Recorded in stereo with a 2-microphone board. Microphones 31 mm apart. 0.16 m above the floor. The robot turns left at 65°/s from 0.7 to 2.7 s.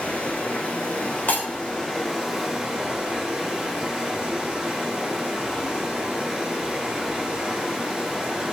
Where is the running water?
110° left, 2.5 m; by 8.5 s 20° right, 2.5 m.